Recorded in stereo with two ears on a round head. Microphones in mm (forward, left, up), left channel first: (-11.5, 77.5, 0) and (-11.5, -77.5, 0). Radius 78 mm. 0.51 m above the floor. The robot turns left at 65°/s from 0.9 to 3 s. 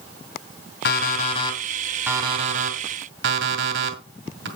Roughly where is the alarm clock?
Left.